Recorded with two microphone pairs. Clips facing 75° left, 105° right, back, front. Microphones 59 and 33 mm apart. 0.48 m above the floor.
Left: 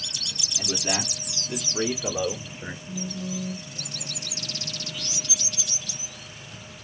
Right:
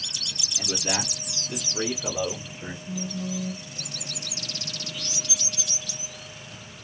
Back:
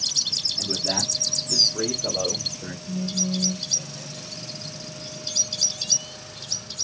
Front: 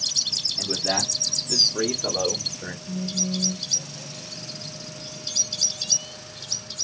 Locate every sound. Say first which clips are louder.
0.6 s a man speaking: even, front 3 dB; 30° right, 1.0 m; by 2.8 s straight ahead, 1.8 m
2.9 s a phone buzzing: right 2 dB, back 1 dB; 90° right, 2.0 m